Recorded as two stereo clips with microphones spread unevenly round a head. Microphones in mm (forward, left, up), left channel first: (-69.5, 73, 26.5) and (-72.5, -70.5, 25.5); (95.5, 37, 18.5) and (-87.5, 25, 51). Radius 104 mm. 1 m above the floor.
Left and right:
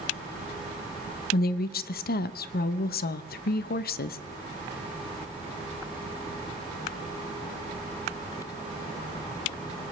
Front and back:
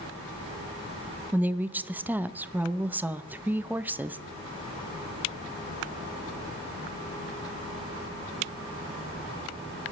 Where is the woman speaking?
100° left, 0.7 m.